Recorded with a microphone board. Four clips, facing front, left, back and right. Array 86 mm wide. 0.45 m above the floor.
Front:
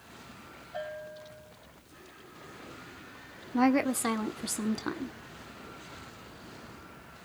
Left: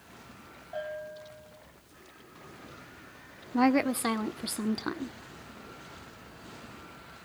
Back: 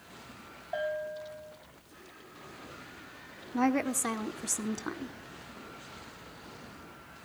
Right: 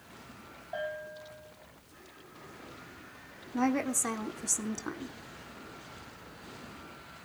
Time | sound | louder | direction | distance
0.7 | a bell | even, back 6 dB | 165° right | 6.5 m
3.5 | a woman speaking | left 5 dB, front 3 dB | 70° left | 0.8 m